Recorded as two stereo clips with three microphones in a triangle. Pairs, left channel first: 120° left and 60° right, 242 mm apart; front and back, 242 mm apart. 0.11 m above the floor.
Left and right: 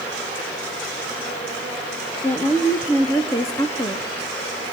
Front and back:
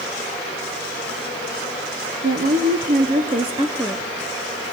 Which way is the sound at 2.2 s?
160° right.